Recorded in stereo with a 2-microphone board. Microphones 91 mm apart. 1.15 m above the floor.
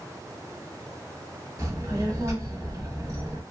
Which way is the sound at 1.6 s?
35° right (ahead or behind).